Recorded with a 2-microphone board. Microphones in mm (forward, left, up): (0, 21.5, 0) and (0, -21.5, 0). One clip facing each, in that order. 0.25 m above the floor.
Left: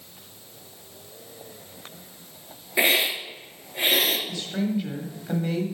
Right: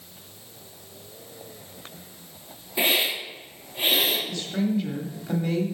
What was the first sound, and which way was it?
A hiss, 75° left (ahead or behind).